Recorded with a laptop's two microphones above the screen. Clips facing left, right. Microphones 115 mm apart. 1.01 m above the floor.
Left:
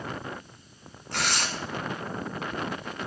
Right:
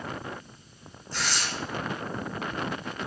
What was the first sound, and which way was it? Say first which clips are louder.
Tearing paper: left 2 dB; 65° left (ahead or behind).